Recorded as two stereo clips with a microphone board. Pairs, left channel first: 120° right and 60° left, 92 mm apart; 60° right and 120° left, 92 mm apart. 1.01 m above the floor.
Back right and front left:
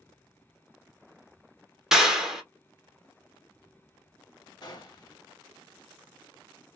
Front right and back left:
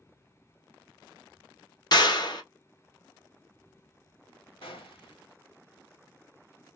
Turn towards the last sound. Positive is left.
turn(degrees=-75)